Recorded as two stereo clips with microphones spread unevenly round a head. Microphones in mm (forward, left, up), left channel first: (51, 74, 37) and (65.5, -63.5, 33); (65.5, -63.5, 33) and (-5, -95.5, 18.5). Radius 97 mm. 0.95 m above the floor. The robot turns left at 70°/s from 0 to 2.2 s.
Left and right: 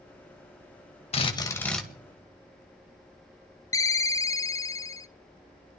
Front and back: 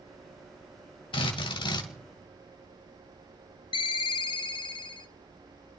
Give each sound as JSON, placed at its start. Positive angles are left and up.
{"t": 1.1, "sound": "a drill", "azimuth_deg": 55, "distance_m": 1.9}
{"t": 3.7, "sound": "a ringtone", "azimuth_deg": 30, "distance_m": 0.6}